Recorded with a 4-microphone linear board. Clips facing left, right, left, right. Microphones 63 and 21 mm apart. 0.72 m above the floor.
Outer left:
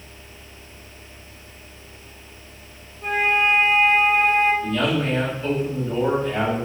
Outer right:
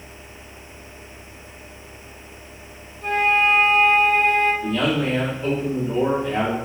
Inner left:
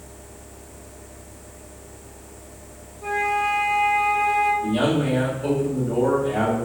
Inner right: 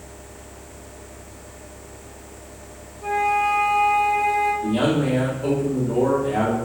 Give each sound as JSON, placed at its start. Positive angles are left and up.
{"t": 3.0, "sound": "a flute", "side_deg": 15, "distance_m": 1.1}
{"t": 4.6, "sound": "a man speaking", "side_deg": -15, "distance_m": 1.5}